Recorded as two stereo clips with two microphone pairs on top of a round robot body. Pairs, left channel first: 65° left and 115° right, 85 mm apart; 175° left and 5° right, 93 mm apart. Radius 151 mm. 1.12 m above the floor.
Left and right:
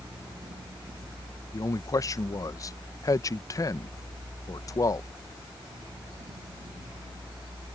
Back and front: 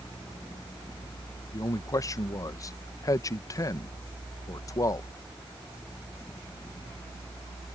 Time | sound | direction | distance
1.5 | a man speaking | 120° left | ?